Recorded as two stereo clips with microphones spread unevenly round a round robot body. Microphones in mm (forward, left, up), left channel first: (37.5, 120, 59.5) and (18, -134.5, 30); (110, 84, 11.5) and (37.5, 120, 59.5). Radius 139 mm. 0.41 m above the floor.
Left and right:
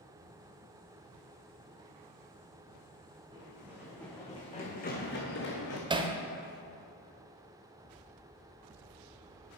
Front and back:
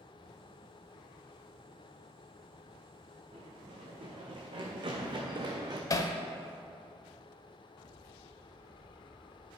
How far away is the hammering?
About 0.7 m.